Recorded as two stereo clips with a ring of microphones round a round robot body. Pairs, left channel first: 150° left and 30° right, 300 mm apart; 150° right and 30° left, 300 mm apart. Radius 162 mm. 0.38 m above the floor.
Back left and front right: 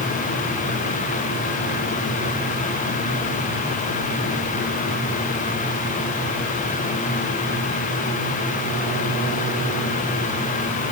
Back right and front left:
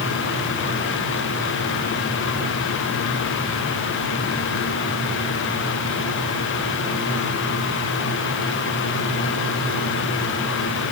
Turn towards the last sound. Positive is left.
No sound to turn to.